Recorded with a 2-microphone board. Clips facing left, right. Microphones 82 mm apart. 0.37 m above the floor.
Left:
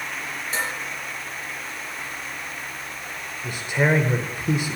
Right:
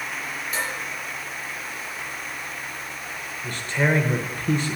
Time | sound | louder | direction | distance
0.5 | dishes clattering | left 2 dB | 35° left (ahead or behind) | 5 m
3.4 | a man speaking | left 2 dB | 15° left (ahead or behind) | 0.8 m